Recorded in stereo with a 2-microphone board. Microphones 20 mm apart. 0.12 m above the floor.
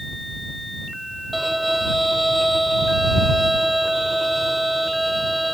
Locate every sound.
1.3 s a violin: 5° right (ahead or behind)